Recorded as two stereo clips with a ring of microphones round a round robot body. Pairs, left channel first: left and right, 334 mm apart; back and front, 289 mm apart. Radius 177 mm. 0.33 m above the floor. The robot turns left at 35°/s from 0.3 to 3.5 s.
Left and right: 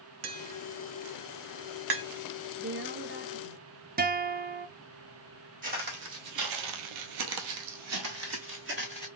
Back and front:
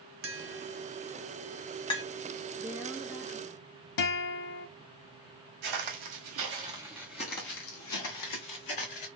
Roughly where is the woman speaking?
Right.